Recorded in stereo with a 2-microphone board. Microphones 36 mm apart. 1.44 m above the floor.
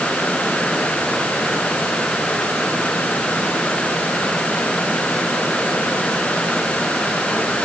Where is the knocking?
No knocking in this recording.